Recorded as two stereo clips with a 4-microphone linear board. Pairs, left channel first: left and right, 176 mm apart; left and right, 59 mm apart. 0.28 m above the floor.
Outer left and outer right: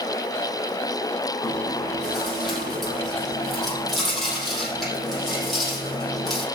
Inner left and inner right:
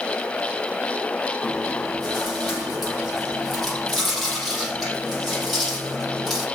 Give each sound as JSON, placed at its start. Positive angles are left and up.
{"t": 1.4, "sound": "chewing", "side_deg": 0, "distance_m": 6.5}